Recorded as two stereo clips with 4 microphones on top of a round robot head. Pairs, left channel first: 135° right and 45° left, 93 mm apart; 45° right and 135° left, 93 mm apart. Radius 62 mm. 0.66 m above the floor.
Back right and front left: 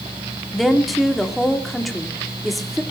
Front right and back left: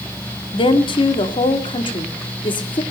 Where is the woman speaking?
45° right, 1.8 m.